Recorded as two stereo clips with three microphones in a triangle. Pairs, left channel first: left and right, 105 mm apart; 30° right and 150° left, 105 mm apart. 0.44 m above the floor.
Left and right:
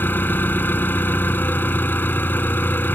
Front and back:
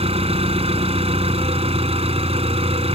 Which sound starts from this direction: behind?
An engine running, at 0.0 s.